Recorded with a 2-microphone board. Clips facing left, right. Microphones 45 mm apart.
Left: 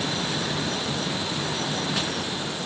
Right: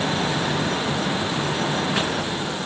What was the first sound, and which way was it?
Only background noise.